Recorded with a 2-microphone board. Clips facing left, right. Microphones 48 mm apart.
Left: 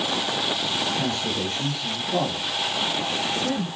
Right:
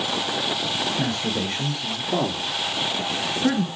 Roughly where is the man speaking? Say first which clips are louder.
Right 1 dB; right.